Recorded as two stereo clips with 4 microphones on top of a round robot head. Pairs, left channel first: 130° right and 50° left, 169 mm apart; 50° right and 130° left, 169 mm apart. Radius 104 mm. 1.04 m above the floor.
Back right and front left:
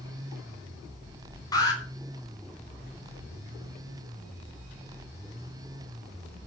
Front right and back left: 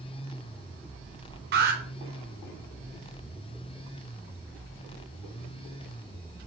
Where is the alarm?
160° left, 4 m.